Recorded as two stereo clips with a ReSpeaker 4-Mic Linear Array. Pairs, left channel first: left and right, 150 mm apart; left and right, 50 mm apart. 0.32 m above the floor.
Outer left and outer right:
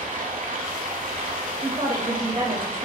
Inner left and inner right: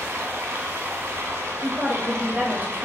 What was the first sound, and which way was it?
Running water, 65° right (ahead or behind).